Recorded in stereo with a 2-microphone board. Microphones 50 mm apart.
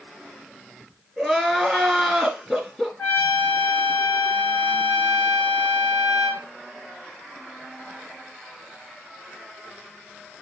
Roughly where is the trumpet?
Left.